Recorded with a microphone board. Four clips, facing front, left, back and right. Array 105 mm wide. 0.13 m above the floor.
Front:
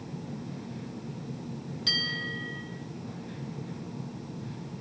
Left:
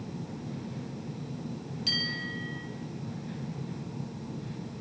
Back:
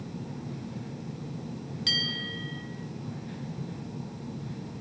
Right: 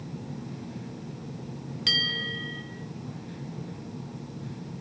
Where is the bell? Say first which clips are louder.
Right 4 dB, front 1 dB; 105° right, 3.5 m.